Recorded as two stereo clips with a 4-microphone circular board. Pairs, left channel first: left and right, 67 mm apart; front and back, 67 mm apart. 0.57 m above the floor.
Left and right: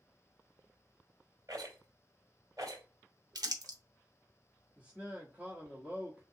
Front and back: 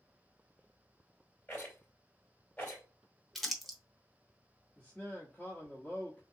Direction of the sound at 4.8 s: 40° right.